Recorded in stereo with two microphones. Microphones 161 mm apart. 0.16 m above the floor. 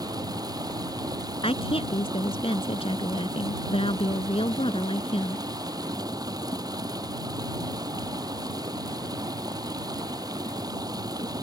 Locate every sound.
0.0 s running water: 25° right (ahead or behind)
1.4 s a woman speaking: 35° left (ahead or behind)